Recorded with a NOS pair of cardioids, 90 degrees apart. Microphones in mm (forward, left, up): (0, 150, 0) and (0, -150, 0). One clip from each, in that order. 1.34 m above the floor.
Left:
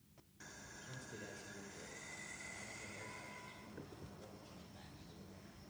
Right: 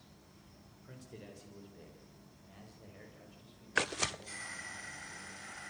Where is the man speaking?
20° right, 5.5 m; by 5.7 s 5° right, 8.5 m.